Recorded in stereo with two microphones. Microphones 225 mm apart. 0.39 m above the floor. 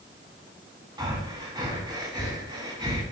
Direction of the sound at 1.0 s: 20° right (ahead or behind).